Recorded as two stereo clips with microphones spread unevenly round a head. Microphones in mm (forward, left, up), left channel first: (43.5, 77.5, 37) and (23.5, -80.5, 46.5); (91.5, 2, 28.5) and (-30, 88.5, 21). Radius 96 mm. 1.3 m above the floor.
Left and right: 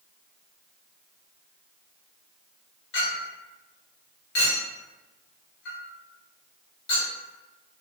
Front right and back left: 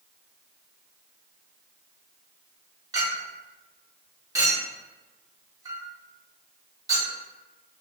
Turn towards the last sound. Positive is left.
turn(degrees=80)